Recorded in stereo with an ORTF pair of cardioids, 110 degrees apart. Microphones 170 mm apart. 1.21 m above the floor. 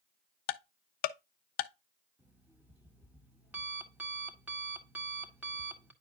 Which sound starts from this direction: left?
Ticking, at 0.5 s.